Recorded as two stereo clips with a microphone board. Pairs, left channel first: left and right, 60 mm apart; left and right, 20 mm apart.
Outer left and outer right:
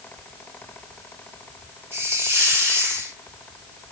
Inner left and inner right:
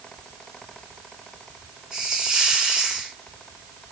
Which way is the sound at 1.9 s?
35° right (ahead or behind).